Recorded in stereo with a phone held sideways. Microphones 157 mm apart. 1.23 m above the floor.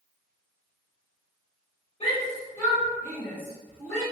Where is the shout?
40° left (ahead or behind), 1.3 m; by 4.0 s 5° left (ahead or behind), 2 m.